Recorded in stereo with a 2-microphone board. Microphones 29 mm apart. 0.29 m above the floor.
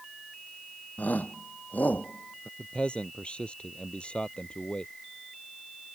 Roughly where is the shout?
Left.